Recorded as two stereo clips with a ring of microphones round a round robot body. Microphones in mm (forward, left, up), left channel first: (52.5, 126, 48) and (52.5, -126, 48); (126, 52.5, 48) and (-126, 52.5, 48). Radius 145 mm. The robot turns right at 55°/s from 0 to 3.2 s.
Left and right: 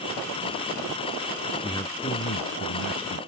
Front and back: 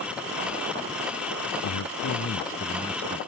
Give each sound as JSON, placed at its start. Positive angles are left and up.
{"t": 1.6, "sound": "a man speaking", "azimuth_deg": 10}